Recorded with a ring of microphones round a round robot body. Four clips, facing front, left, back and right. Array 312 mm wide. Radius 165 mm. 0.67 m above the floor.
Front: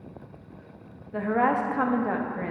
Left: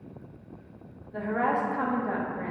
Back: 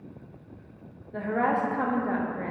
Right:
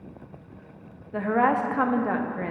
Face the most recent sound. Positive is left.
turn(degrees=-70)